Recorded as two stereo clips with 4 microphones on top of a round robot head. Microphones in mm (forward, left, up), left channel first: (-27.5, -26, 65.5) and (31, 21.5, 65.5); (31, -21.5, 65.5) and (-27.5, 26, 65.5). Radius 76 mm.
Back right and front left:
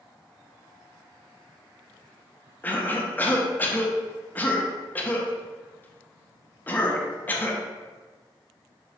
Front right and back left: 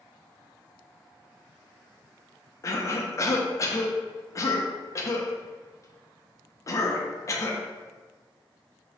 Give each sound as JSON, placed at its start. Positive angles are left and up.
{"t": 2.6, "sound": "a cough", "azimuth_deg": -75, "distance_m": 0.9}